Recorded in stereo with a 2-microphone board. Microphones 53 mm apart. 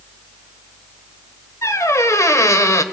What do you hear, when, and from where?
1.6 s a squeak: 70° left (ahead or behind), 1.3 m